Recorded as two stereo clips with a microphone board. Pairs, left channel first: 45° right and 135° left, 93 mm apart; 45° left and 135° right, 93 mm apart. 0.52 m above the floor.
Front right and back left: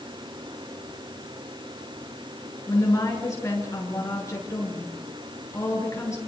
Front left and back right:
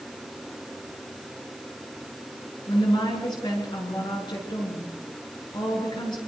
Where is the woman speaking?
10° left, 6.5 m.